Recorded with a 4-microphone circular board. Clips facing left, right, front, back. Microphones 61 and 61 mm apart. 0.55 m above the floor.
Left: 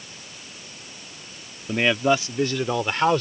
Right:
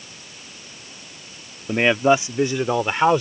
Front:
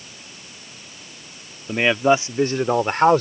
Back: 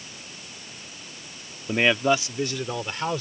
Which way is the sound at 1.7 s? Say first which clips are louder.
Right 4 dB, front 4 dB; 90° right.